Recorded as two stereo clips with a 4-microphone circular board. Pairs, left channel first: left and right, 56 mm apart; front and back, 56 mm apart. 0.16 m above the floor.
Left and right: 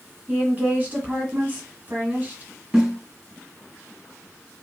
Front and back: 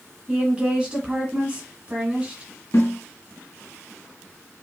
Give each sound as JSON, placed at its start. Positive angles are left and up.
{"t": 0.3, "sound": "a woman speaking", "azimuth_deg": -125, "distance_m": 1.7}
{"t": 2.7, "sound": "a snare drum", "azimuth_deg": -20, "distance_m": 3.0}